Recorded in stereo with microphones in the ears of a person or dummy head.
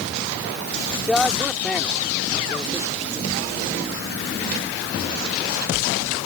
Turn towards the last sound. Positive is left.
turn(degrees=0)  # may be behind; listen again after turning